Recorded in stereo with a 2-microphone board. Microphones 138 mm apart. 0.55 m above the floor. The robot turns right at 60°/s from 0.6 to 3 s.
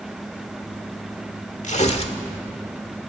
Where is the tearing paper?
100° left, 1.4 m; by 2.2 s 130° left, 1.4 m.